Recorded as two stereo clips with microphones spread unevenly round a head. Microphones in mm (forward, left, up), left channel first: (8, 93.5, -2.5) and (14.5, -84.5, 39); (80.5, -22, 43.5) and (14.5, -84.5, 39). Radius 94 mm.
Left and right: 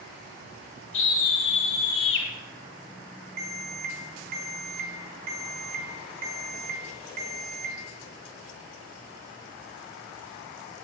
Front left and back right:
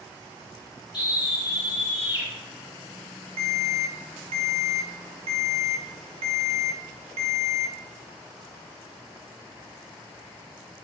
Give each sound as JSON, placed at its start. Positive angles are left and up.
{"t": 0.9, "sound": "a scream", "azimuth_deg": 105, "distance_m": 4.5}
{"t": 3.4, "sound": "an alarm", "azimuth_deg": -135, "distance_m": 1.8}